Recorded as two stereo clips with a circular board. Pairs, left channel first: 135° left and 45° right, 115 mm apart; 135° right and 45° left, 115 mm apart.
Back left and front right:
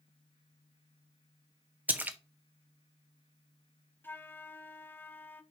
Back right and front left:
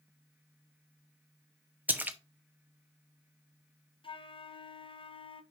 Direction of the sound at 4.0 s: 155° right.